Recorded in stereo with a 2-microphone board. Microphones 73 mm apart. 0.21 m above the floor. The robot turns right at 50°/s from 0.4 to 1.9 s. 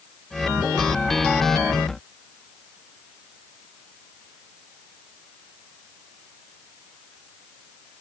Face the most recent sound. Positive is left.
No sound to turn to.